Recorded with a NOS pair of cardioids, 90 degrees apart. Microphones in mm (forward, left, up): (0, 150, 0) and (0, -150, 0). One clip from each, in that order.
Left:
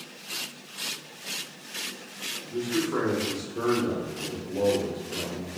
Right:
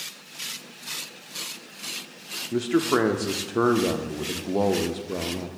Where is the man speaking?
60° right, 0.5 m.